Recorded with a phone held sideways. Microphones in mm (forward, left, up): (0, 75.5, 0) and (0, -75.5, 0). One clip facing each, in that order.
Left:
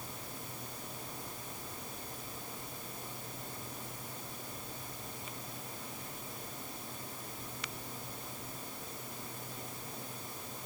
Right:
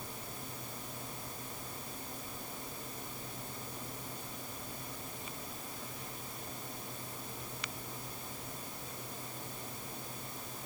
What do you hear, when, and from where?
Only background noise.